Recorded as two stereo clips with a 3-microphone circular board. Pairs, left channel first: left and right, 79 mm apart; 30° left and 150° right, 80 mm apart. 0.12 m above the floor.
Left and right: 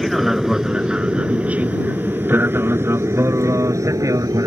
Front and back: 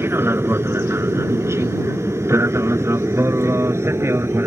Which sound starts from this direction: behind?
An aircraft, at 0.0 s.